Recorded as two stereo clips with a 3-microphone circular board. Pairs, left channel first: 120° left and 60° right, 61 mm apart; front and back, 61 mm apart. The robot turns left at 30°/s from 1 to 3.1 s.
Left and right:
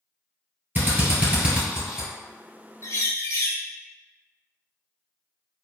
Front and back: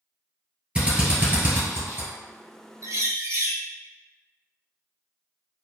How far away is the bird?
About 0.5 m.